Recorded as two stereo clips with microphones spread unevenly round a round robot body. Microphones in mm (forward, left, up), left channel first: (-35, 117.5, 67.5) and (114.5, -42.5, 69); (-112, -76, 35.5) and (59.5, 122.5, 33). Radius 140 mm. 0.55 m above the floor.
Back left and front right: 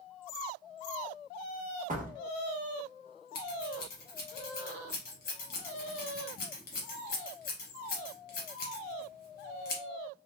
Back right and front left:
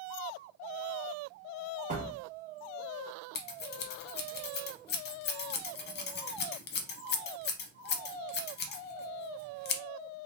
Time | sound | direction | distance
1.9 | a door slam | 5° right | 1.2 m
3.4 | scissors | 175° right | 0.7 m